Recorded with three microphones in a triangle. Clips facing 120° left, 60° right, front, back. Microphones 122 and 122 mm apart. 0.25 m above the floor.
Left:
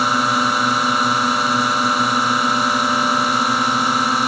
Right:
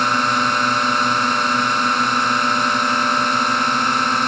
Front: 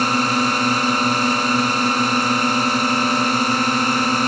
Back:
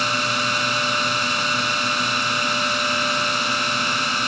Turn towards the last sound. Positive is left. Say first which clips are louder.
# left 1 dB, front 6 dB
turn(degrees=40)